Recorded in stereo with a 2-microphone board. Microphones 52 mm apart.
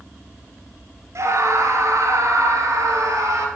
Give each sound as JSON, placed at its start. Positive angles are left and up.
{"t": 1.1, "sound": "a scream", "side_deg": -65, "distance_m": 2.5}